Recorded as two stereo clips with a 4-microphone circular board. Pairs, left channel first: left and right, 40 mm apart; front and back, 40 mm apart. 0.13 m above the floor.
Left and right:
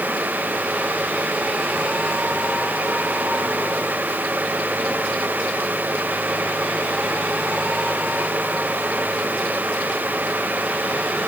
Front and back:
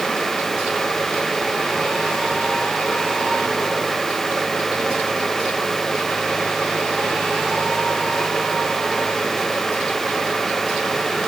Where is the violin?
I don't hear a violin.